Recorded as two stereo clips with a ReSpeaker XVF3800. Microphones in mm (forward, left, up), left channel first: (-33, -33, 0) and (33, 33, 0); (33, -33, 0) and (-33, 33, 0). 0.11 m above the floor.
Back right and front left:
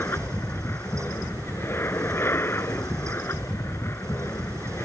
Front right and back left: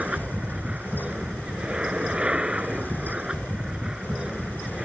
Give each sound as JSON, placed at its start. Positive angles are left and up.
{"t": 0.0, "sound": "an aircraft", "azimuth_deg": -160}